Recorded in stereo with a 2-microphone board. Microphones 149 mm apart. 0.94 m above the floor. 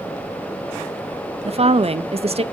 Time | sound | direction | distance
1.4 | a woman speaking | 45° right (ahead or behind) | 0.6 m